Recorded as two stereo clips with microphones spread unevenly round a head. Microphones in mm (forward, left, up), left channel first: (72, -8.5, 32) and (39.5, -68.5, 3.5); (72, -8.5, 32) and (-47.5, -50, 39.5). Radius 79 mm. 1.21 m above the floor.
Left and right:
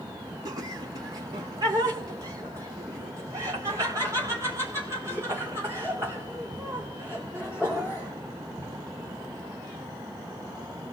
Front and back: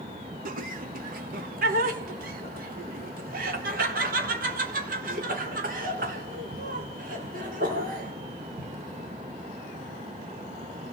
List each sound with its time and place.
0.5 s laughter: 150° right, 2.5 m; by 8.7 s 165° left, 6.5 m